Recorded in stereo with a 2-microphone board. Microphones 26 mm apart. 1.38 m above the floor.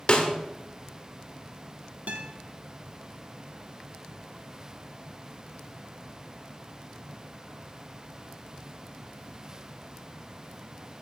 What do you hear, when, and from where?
0.1 s a snare drum: 45° left (ahead or behind), 1.7 m
2.1 s a guitar: 60° right (ahead or behind), 1.4 m